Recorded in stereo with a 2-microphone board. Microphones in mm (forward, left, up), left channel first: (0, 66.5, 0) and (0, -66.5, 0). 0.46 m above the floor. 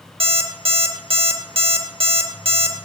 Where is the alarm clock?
45° right (ahead or behind), 0.7 m.